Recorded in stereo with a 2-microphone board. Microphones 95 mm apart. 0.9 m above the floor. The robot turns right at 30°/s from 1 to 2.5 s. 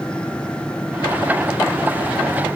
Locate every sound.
Only background noise.